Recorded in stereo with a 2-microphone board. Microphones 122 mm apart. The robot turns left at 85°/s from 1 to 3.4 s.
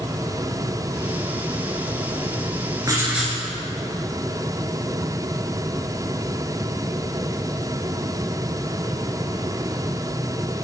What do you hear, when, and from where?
2.8 s writing: 145° right, 1.2 m; by 3.4 s 170° left, 1.2 m